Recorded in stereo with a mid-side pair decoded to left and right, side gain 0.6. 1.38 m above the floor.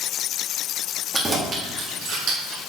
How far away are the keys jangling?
About 1.7 m.